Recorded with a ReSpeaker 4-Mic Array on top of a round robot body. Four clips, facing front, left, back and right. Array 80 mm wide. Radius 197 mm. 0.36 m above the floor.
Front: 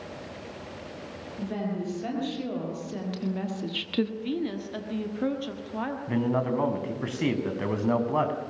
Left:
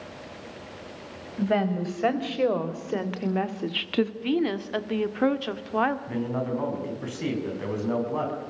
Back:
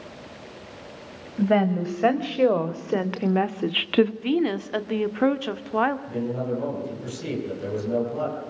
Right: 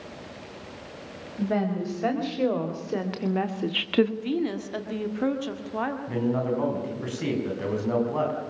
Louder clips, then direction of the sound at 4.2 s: Left 2 dB, back 7 dB; 155° left.